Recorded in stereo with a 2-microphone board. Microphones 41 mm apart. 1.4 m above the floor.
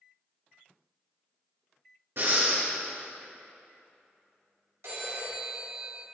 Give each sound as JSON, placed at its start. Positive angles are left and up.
{"t": 2.2, "sound": "breathing", "side_deg": -60, "distance_m": 1.5}
{"t": 4.8, "sound": "a phone ringing", "side_deg": -70, "distance_m": 1.9}